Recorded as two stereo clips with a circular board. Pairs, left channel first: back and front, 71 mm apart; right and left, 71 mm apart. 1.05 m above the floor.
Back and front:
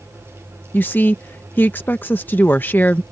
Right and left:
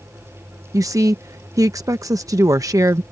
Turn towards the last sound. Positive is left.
turn(degrees=120)